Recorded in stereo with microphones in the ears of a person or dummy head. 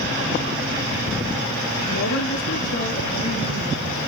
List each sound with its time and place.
1.9 s a woman speaking: 75° left (ahead or behind), 0.9 m; by 4.0 s 30° left (ahead or behind), 1.5 m